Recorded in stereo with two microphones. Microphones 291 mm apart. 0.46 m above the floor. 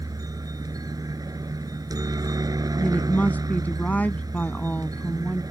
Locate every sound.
0.0 s a helicopter: 10° right (ahead or behind)
2.8 s a woman speaking: 5° left (ahead or behind)